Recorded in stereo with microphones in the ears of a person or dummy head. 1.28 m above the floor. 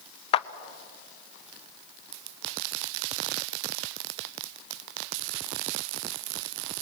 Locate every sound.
0.3 s a clap: 40° left (ahead or behind), 0.7 m